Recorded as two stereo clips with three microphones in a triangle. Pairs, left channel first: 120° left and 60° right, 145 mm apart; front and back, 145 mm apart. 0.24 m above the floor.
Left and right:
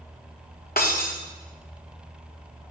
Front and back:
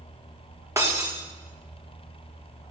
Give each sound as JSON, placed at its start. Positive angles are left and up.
{"t": 0.8, "sound": "breaking glass", "azimuth_deg": 110, "distance_m": 2.5}